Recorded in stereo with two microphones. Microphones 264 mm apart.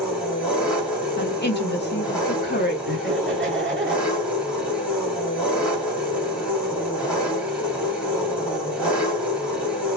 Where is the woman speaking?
40° left (ahead or behind), 1.0 m.